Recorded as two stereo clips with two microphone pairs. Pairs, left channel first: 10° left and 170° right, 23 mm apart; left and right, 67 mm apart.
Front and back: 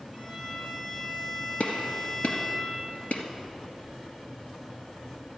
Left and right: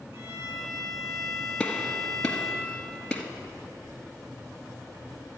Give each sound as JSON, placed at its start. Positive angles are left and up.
{"t": 0.1, "sound": "a violin", "azimuth_deg": -65, "distance_m": 4.5}
{"t": 1.6, "sound": "a gunshot", "azimuth_deg": 10, "distance_m": 1.6}